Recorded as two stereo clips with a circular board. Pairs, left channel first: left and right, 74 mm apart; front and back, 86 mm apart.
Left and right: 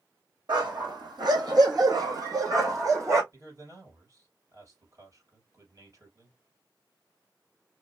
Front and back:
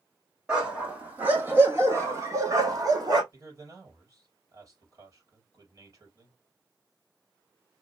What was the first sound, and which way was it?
A dog barking, 100° right.